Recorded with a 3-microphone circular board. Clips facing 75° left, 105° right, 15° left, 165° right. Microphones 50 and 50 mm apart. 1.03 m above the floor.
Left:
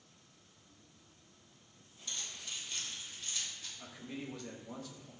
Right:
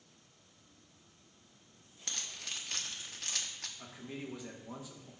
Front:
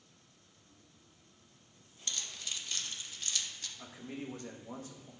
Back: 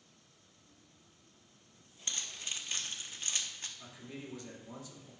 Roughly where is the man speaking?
Ahead right.